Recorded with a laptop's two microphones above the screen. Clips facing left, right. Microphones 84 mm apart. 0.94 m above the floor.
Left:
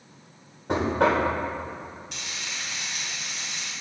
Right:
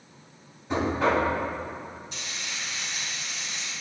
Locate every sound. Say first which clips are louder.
0.7 s knocking: left 2 dB; 75° left (ahead or behind), 2 m
2.1 s frying: even; 80° left, 2.5 m